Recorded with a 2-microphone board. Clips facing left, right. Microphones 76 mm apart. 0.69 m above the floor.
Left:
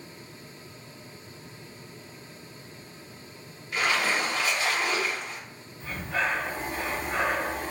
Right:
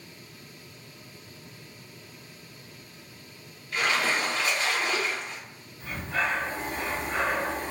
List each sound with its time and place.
3.7 s a splash: 20° left (ahead or behind), 1.6 m
5.8 s breathing: 25° left (ahead or behind), 1.0 m